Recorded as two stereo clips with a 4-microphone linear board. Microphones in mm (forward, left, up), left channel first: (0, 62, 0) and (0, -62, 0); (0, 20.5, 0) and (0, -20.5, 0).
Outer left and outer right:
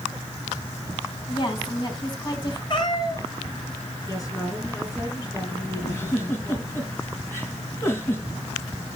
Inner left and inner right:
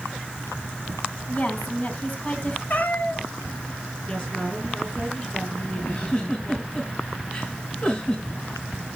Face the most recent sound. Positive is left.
turn(degrees=20)  # may be behind; listen again after turning